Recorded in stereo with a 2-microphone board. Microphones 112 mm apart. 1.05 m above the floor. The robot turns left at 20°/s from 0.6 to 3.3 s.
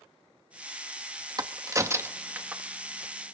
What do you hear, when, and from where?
1.4 s a crack: 35° right (ahead or behind), 1.0 m; by 2.6 s 10° right (ahead or behind), 1.0 m